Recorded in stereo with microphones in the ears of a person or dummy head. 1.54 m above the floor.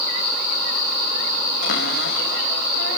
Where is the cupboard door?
60° left (ahead or behind), 2 m.